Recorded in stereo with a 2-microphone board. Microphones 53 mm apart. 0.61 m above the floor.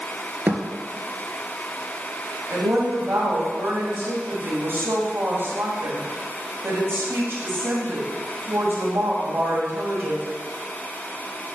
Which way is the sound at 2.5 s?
50° right (ahead or behind).